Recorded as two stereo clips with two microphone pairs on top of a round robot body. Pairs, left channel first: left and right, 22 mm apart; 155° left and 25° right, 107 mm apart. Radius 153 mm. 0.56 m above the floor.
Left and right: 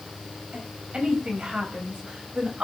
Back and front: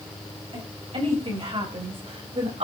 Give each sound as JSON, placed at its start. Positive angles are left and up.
{"t": 0.5, "sound": "a woman speaking", "azimuth_deg": -55, "distance_m": 6.0}